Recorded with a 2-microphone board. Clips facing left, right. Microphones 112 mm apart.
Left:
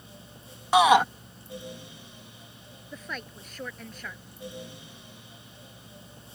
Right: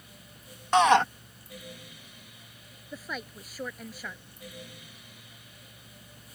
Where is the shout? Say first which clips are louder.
Left 2 dB; 10° left (ahead or behind).